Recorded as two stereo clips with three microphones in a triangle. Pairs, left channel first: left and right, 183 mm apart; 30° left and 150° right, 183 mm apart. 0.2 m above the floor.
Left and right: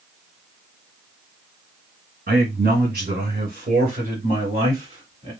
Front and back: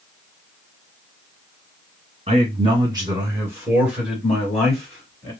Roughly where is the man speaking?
Right.